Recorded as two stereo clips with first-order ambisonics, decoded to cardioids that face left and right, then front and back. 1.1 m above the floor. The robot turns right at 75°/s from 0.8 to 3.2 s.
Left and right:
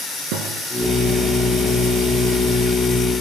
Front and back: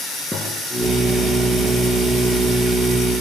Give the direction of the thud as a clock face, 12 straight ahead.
3 o'clock.